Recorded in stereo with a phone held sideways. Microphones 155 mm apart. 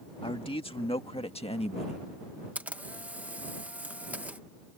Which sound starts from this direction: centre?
A camera shutter, at 2.5 s.